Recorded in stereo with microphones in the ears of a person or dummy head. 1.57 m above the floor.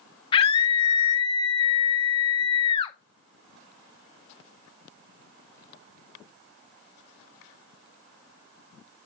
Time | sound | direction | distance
0.3 | a scream | 30° left (ahead or behind) | 1.1 m